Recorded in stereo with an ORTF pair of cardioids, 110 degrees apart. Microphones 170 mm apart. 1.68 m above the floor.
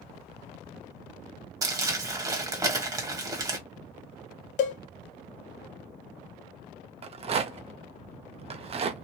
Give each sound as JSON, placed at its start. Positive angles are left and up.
{"t": 1.6, "sound": "crumpling", "azimuth_deg": -20, "distance_m": 1.1}
{"t": 4.6, "sound": "a cowbell", "azimuth_deg": 50, "distance_m": 0.7}
{"t": 7.0, "sound": "a rattle", "azimuth_deg": -35, "distance_m": 0.6}